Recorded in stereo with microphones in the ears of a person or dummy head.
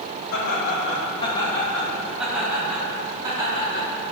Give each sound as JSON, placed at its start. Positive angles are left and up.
{"t": 0.3, "sound": "laughter", "side_deg": 55, "distance_m": 2.5}